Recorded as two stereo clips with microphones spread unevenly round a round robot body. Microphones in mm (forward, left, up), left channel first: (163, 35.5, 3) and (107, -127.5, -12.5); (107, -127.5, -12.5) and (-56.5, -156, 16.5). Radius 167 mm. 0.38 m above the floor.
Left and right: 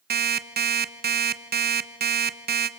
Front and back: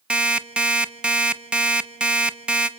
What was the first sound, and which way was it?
An alarm clock, 85° right.